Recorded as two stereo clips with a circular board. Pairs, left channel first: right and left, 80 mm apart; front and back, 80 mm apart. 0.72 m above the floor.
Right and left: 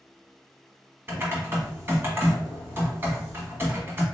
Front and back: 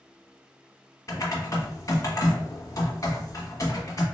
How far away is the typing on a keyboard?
About 0.9 m.